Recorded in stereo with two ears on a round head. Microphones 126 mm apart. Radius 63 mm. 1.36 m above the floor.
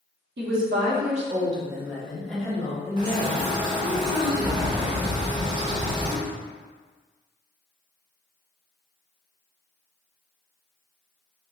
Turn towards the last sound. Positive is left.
turn(degrees=-35)  # may be behind; listen again after turning